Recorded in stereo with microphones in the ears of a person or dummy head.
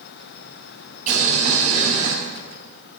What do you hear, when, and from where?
1.1 s boiling: 45° right (ahead or behind), 5.5 m